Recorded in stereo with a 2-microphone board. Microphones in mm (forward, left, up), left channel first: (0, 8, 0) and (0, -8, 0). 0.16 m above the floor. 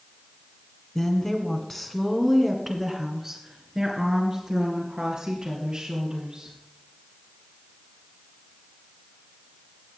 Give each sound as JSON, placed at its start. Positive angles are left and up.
{"t": 0.9, "sound": "a woman speaking", "side_deg": 30, "distance_m": 2.0}